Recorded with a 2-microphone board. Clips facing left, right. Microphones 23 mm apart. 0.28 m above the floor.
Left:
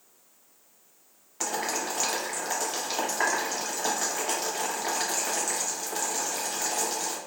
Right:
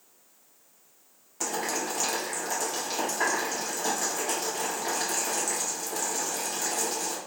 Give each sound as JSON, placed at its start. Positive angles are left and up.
{"t": 1.4, "sound": "boiling", "side_deg": 30, "distance_m": 0.8}